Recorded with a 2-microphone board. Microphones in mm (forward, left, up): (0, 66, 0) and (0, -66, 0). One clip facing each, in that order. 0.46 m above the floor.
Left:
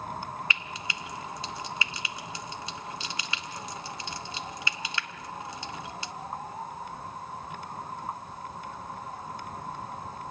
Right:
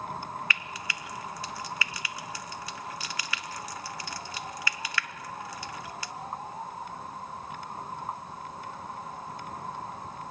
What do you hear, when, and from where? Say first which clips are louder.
0.5 s frying: even; 20° left (ahead or behind), 0.7 m